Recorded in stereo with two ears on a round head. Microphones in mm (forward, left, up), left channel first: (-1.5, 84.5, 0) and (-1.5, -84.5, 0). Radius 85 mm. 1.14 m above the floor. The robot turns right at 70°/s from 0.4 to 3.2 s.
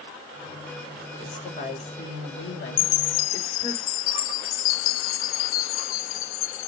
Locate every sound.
1.2 s a woman speaking: 15° left, 5 m; by 3.8 s 155° left, 5 m
2.8 s a chime: 50° left, 0.7 m; by 6.7 s 80° left, 0.7 m